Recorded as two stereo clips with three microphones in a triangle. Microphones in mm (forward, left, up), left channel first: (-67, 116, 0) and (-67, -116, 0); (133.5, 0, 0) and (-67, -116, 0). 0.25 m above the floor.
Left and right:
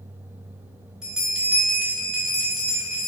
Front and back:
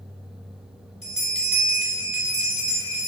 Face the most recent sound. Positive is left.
turn(degrees=-5)